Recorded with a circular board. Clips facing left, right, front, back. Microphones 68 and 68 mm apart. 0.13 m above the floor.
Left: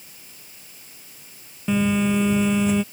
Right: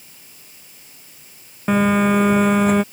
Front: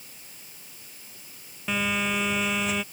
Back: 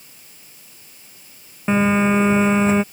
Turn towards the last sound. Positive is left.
turn(degrees=-125)